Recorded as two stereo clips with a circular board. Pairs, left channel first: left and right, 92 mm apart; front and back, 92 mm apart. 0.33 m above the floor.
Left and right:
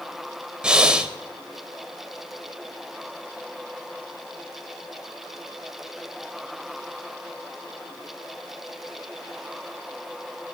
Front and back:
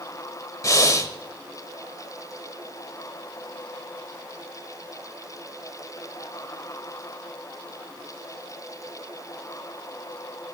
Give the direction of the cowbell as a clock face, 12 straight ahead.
I don't hear a cowbell.